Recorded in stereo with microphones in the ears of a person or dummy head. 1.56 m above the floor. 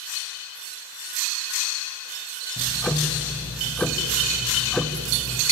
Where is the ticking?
Centre (ahead or behind), 0.9 m.